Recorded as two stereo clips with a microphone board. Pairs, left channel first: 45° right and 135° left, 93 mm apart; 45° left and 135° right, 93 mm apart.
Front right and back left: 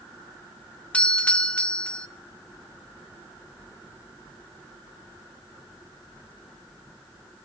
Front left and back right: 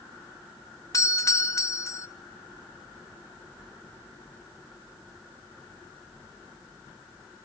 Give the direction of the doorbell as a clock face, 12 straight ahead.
11 o'clock.